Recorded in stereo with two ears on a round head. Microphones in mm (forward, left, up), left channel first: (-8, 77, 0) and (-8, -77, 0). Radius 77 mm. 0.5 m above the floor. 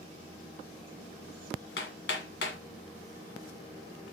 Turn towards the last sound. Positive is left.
turn(degrees=75)  # may be behind; listen again after turning